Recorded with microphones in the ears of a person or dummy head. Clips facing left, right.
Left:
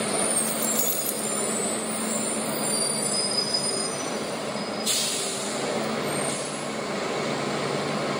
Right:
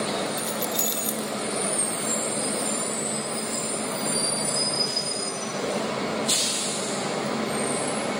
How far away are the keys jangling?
About 0.9 m.